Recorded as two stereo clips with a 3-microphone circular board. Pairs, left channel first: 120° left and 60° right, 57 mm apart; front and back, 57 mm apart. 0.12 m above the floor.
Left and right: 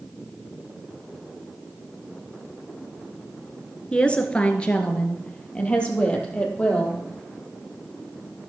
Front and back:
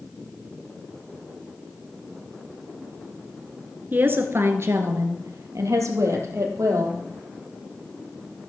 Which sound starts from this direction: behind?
A woman speaking, at 3.9 s.